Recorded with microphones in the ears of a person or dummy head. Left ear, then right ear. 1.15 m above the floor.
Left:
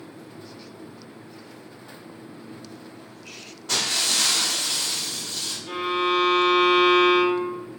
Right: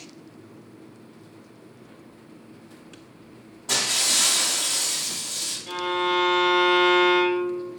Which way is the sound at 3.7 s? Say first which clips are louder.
Even; 20° right (ahead or behind).